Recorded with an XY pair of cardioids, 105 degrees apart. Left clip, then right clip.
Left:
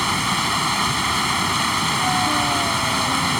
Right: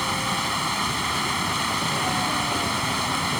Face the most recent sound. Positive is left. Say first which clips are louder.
# left 4 dB
turn(degrees=35)